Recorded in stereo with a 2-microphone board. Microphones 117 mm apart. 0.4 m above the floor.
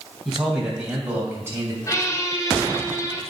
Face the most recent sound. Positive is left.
turn(degrees=30)  # may be behind; listen again after turning